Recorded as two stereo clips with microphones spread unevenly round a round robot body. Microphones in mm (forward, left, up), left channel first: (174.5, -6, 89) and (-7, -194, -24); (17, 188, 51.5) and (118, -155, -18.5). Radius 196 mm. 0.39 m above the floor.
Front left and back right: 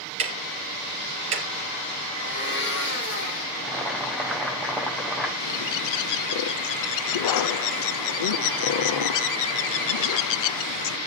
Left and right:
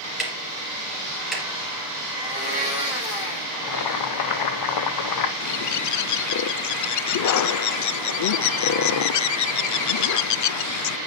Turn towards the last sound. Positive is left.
turn(degrees=65)